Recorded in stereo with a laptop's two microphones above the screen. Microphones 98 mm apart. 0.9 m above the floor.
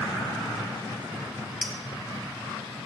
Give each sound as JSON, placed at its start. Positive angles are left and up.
{"t": 1.6, "sound": "a clink", "side_deg": 0, "distance_m": 0.7}